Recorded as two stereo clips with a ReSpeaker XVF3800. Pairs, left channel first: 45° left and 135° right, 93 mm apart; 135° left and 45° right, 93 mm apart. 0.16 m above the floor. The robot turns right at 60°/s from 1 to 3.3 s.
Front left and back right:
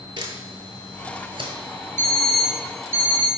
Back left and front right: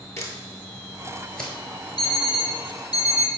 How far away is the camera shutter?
About 0.8 m.